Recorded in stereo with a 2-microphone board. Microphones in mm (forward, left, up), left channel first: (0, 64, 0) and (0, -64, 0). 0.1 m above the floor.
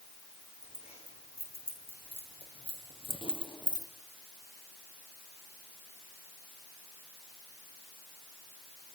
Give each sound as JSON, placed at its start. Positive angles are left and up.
{"t": 0.6, "sound": "keys jangling", "side_deg": 50, "distance_m": 6.0}